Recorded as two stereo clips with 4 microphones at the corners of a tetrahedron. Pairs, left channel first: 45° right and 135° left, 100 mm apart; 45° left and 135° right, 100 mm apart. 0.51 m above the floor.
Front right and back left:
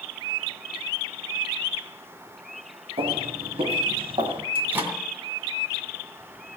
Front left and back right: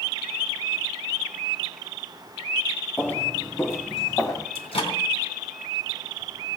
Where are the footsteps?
120° left, 2.5 m; by 4.5 s 100° left, 2.5 m.